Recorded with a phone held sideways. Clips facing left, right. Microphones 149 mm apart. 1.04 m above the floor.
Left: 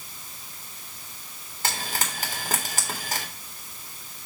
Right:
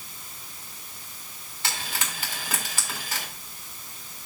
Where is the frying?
45° left (ahead or behind), 3 m.